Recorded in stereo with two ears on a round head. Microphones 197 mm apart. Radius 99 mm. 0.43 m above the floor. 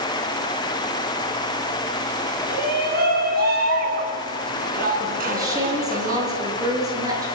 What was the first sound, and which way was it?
A shout, 45° right (ahead or behind).